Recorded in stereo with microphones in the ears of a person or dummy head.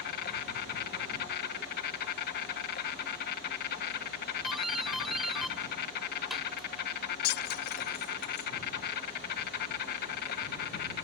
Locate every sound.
0.0 s an insect: 55° left (ahead or behind)
4.4 s a doorbell: centre (ahead or behind)
7.2 s breaking glass: 60° left (ahead or behind)